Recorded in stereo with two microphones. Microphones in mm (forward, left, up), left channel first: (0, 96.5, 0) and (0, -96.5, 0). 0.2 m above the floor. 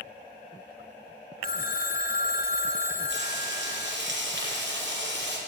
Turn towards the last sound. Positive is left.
turn(degrees=-70)  # may be behind; listen again after turning